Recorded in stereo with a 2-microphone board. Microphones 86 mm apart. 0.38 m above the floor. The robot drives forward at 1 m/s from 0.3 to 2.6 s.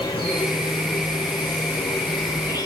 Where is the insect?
75° left (ahead or behind), 6.5 m; by 2.7 s 60° left (ahead or behind), 7.5 m.